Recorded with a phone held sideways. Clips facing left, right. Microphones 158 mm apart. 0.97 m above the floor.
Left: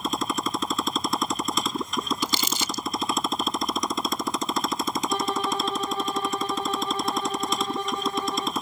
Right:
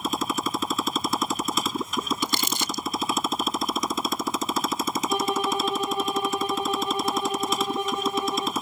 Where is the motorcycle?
Centre (ahead or behind).